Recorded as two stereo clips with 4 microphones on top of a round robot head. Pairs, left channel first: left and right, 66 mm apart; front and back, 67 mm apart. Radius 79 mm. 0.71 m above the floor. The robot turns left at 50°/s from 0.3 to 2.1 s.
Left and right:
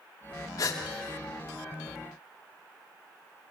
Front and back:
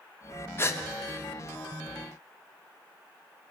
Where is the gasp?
50° left, 0.9 m; by 0.8 s 40° left, 0.9 m.